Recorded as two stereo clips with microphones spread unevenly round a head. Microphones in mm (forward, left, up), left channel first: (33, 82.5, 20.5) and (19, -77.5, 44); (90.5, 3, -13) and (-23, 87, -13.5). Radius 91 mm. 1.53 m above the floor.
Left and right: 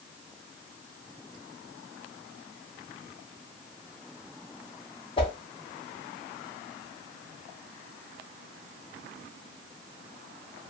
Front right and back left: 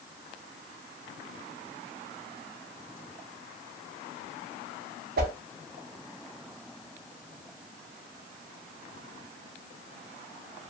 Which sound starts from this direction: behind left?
A whoosh, at 5.2 s.